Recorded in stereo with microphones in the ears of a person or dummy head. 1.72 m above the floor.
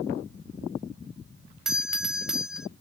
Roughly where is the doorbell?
Centre.